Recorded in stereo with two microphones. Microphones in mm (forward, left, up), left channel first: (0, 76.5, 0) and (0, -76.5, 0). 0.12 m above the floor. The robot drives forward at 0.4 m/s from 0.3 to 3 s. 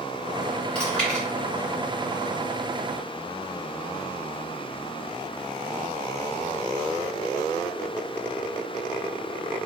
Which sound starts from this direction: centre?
Chewing, at 0.8 s.